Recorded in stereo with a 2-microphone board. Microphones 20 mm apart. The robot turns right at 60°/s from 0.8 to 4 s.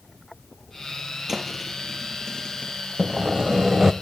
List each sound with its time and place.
1.3 s a thud: 30° right (ahead or behind), 3.5 m; by 2.7 s 55° left (ahead or behind), 3.5 m
3.0 s sawing: 90° right, 0.6 m; by 3.9 s 35° right, 0.6 m